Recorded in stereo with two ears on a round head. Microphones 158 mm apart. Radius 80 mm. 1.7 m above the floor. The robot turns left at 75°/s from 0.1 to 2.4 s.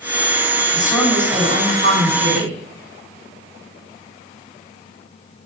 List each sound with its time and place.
0.7 s a woman speaking: 30° left, 8.5 m; by 2.6 s 95° right, 8.5 m